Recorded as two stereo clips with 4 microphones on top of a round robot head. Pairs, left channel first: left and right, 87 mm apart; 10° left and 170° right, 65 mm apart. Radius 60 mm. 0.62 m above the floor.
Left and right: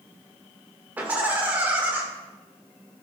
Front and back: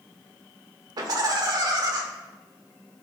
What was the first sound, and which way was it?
Laughter, 160° right.